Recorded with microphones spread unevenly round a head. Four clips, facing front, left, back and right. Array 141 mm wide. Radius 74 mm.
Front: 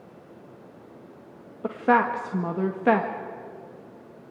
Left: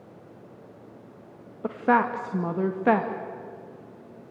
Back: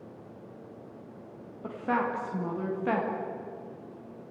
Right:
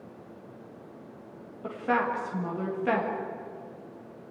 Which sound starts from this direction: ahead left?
A woman speaking, at 1.6 s.